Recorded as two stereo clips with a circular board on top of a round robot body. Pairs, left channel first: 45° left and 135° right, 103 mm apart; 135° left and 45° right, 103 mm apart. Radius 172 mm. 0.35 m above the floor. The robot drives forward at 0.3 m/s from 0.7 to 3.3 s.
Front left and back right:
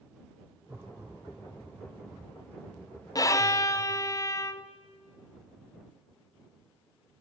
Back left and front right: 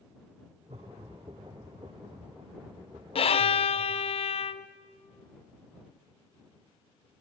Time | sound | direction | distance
0.7 | laughter | 65° right | 5.5 m
3.1 | a violin | 100° left | 0.6 m